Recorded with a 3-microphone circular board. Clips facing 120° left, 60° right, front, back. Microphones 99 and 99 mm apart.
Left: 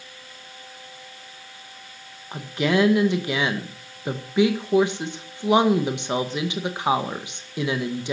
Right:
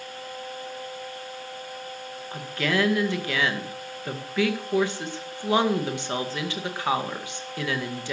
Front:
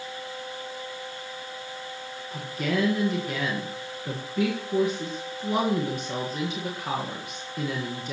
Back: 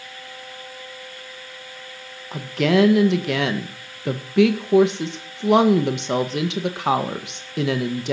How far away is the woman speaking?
About 1.7 m.